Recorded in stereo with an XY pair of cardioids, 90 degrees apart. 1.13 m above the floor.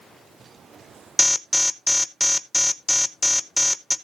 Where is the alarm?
10° left, 0.8 m.